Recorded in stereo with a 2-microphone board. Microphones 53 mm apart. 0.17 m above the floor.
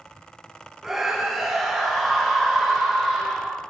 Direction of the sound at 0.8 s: 10° right (ahead or behind).